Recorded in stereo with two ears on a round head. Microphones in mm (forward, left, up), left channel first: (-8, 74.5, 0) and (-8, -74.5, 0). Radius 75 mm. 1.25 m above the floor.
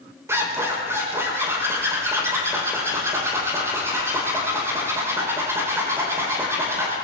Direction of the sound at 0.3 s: 15° right (ahead or behind).